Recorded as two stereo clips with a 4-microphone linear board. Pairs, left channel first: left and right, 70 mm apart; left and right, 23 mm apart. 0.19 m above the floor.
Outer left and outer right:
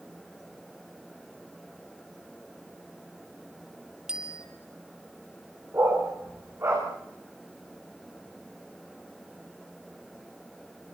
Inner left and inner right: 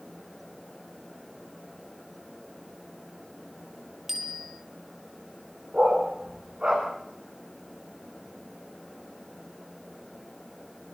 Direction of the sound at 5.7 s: 40° right (ahead or behind).